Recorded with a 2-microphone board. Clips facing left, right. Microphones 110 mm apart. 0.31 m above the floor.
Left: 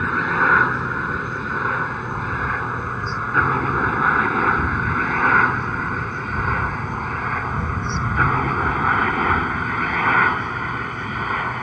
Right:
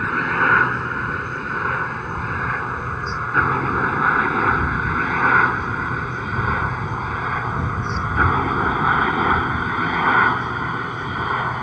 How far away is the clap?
I don't hear a clap.